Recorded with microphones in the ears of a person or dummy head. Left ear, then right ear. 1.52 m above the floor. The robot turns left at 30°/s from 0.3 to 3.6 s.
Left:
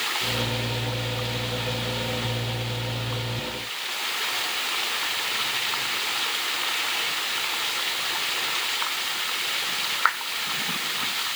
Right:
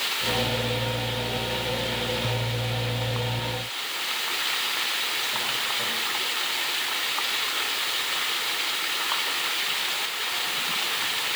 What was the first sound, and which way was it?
Only background noise.